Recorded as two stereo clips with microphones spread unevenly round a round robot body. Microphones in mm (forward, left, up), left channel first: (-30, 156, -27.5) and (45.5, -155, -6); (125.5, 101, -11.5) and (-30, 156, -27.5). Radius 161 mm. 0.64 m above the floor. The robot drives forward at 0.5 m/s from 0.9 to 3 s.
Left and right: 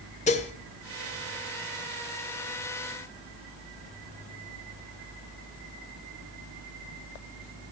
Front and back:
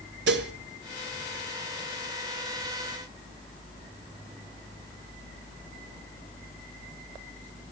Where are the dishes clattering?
175° left, 1.3 m.